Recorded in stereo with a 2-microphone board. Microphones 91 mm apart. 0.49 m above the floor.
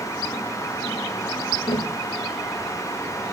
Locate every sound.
1.7 s tapping: 75° left (ahead or behind), 1.0 m